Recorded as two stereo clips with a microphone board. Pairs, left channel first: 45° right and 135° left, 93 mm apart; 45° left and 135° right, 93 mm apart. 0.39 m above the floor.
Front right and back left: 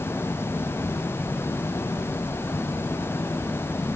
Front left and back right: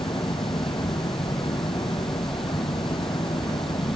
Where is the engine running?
20° left.